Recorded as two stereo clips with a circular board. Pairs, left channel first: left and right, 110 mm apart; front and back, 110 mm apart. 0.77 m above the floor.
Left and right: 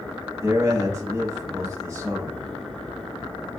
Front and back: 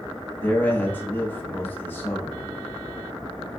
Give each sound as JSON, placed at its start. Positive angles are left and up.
{"t": 0.4, "sound": "a man speaking", "azimuth_deg": -55, "distance_m": 0.9}